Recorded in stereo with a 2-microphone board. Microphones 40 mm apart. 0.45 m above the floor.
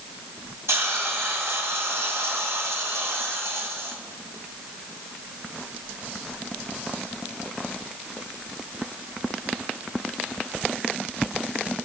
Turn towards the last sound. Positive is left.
turn(degrees=-75)  # may be behind; listen again after turning